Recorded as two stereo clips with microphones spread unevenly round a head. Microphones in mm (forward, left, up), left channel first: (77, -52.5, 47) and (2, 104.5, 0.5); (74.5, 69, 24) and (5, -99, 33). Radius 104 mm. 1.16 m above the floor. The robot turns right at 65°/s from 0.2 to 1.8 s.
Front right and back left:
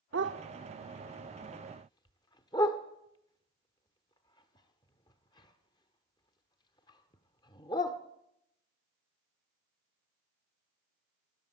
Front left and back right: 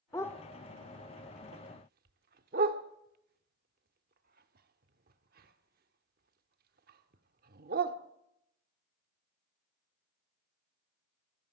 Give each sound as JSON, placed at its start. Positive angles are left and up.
{"t": 0.1, "sound": "a dog barking", "azimuth_deg": 145, "distance_m": 1.0}